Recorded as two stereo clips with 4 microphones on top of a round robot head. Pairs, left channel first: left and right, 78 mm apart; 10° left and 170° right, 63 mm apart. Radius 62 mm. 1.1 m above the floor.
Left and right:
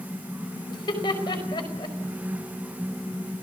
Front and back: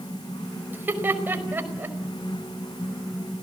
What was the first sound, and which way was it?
Laughter, 135° left.